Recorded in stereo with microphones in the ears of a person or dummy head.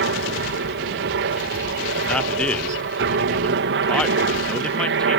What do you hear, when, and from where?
0.0 s a helicopter: 60° right (ahead or behind)
2.1 s a man speaking: centre (ahead or behind)